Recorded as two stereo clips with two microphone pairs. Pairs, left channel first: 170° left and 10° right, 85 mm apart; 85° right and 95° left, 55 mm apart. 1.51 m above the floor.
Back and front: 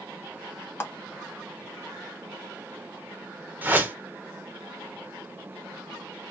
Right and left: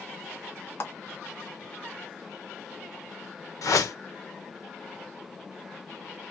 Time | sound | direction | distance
0.8 | a clap | 130° right | 1.3 m
3.6 | a whoosh | 80° right | 1.1 m